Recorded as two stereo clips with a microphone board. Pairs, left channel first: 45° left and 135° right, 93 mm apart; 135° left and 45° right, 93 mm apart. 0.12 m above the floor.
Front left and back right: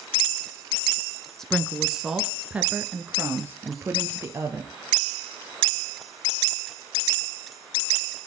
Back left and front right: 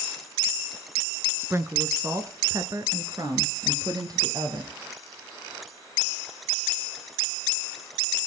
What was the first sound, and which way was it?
A woman speaking, 35° right.